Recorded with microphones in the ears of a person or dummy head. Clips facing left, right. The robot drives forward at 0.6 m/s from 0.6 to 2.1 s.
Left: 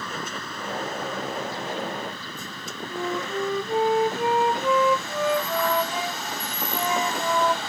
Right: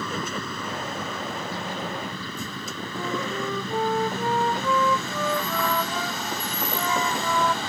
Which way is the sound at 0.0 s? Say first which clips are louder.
Right 4 dB; 60° right (ahead or behind).